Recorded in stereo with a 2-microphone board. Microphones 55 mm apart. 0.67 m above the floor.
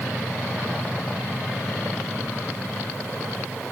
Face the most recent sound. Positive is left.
No sound to turn to.